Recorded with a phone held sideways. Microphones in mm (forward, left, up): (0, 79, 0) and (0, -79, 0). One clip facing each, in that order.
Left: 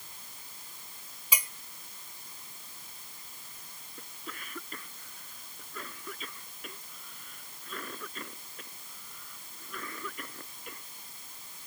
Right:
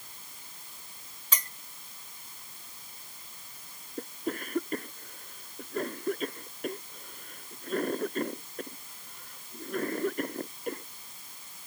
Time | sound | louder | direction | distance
1.3 | a clink | left 1 dB | 10° left (ahead or behind) | ?
4.0 | a cough | right 13 dB | 50° right (ahead or behind) | ?